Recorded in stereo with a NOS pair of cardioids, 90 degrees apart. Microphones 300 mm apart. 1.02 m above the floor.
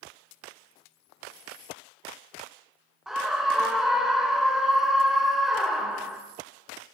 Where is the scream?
Straight ahead, 0.8 m.